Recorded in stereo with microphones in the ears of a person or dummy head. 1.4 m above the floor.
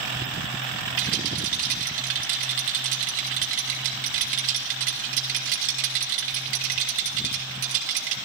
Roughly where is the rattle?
Right.